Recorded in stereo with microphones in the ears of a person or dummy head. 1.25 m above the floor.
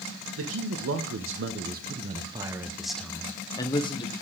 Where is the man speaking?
75° right (ahead or behind), 1.3 m; by 4.1 s 25° left (ahead or behind), 1.4 m.